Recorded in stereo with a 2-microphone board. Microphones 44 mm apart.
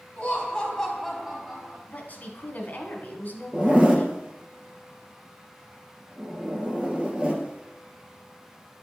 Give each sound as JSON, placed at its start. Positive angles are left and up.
{"t": 0.2, "sound": "laughter", "side_deg": 35, "distance_m": 1.5}
{"t": 1.9, "sound": "a woman speaking", "side_deg": 45, "distance_m": 1.5}
{"t": 3.5, "sound": "a zipper", "side_deg": -20, "distance_m": 1.2}